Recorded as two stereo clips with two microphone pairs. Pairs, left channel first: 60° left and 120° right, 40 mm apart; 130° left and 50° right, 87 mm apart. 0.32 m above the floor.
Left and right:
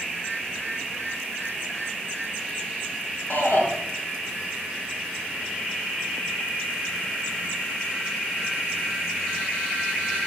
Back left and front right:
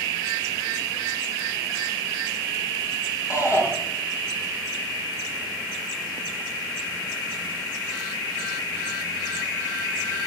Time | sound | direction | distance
3.3 | a shout | 80° left | 4.5 m